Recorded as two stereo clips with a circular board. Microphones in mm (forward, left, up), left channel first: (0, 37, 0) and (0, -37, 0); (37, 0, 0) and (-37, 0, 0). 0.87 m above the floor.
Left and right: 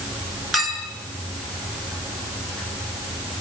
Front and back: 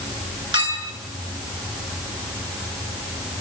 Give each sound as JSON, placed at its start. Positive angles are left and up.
{"t": 0.5, "sound": "a clink", "azimuth_deg": 180, "distance_m": 7.0}